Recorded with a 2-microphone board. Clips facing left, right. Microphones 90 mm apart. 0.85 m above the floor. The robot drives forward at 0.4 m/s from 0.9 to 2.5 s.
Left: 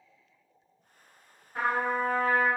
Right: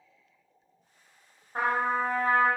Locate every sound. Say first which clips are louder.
1.6 s a trumpet: right 1 dB; 40° right (ahead or behind), 0.9 m; by 2.5 s 45° right (ahead or behind), 0.9 m